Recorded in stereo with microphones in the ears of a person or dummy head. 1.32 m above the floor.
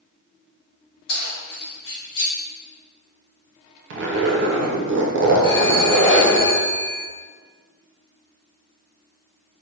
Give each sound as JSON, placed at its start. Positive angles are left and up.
{"t": 1.1, "sound": "keys jangling", "side_deg": 70, "distance_m": 1.1}
{"t": 3.9, "sound": "a zipper", "side_deg": -60, "distance_m": 0.6}
{"t": 5.4, "sound": "a phone ringing", "side_deg": 70, "distance_m": 1.3}